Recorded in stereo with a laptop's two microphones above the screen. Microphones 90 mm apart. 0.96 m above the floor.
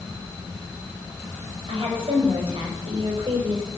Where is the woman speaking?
80° right, 5.5 m.